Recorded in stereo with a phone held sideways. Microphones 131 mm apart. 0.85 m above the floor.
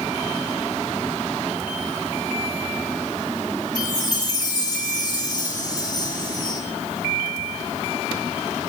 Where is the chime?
35° left (ahead or behind), 3 m.